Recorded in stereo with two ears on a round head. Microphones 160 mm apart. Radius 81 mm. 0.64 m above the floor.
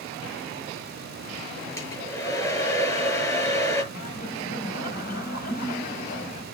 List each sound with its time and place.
1.8 s a hair dryer: 20° left (ahead or behind), 6.5 m
3.9 s laughter: 50° left (ahead or behind), 3.5 m